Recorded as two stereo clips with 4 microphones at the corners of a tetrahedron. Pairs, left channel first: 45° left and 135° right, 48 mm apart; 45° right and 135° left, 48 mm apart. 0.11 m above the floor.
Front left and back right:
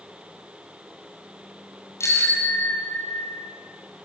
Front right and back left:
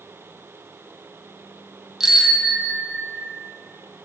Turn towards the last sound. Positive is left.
turn(degrees=15)